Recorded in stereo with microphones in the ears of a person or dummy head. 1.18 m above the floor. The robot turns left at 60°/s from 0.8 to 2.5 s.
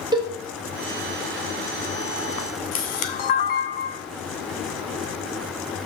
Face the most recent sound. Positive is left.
turn(degrees=50)  # may be behind; listen again after turning